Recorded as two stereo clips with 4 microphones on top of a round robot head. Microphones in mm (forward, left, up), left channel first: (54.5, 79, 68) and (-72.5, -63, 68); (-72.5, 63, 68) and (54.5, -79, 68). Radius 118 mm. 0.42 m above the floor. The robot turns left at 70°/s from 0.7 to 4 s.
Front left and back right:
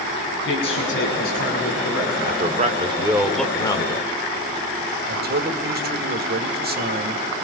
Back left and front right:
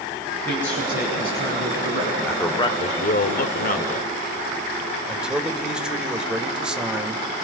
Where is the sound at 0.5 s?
50° left, 6 m; by 2.1 s 45° right, 6 m.